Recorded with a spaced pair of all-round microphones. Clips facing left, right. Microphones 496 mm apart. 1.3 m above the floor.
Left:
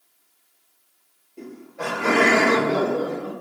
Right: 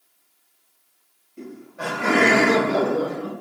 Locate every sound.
1.4 s laughter: 25° right (ahead or behind), 1.1 m; by 3.3 s 85° right, 0.7 m